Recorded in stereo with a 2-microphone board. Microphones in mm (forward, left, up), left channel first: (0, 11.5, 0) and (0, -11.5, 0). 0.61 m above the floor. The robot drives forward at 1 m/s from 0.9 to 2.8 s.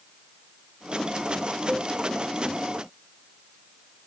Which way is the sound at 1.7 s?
30° right (ahead or behind).